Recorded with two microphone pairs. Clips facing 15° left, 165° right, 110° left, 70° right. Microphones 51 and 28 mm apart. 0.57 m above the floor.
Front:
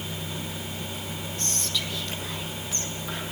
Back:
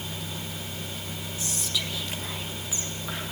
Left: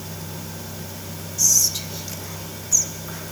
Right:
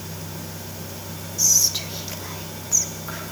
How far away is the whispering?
About 0.8 m.